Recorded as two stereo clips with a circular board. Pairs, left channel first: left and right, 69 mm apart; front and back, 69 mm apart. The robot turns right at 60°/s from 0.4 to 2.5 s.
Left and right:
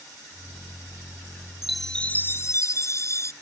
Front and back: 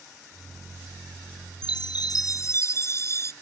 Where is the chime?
5° right; by 3.3 s 45° left.